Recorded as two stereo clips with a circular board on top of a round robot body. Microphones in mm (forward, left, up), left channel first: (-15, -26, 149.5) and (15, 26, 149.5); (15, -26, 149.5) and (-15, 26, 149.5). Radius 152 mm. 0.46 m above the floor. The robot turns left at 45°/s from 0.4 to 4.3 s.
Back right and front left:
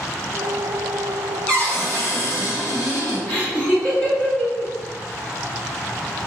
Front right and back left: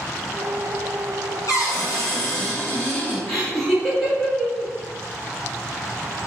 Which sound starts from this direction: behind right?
Laughter, at 3.3 s.